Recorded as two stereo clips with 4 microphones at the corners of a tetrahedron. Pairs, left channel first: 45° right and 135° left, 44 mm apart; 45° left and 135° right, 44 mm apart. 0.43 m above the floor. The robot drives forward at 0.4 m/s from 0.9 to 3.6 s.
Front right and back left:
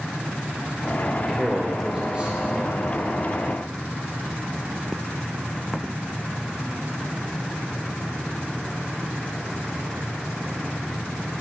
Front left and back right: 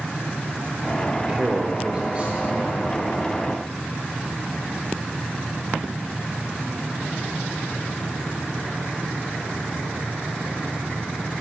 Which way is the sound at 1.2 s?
170° right.